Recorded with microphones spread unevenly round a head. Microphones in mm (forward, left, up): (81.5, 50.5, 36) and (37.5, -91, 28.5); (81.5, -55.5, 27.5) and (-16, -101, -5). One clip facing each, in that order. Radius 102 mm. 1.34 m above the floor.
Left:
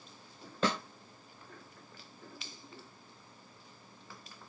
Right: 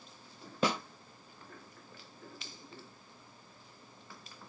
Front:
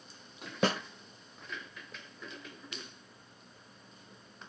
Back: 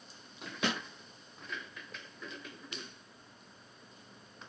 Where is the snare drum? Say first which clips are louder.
Right 1 dB, front 5 dB; 30° right, 0.6 m.